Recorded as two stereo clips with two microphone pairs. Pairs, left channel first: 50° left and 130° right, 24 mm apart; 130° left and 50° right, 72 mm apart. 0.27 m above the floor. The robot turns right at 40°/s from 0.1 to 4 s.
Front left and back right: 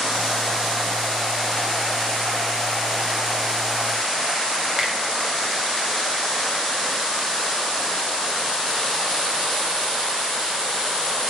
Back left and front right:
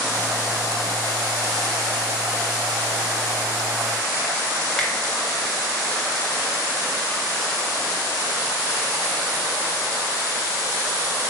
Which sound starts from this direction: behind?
A finger snap, at 4.8 s.